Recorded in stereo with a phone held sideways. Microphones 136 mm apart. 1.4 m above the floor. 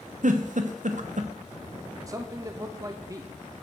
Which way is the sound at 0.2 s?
65° right (ahead or behind).